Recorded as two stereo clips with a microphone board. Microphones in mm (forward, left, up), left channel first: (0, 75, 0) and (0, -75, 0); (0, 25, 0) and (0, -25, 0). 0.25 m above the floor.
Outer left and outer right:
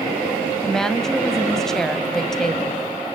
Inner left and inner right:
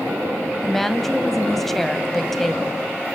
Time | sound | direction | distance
0.6 | a woman speaking | 5° left (ahead or behind) | 1.4 m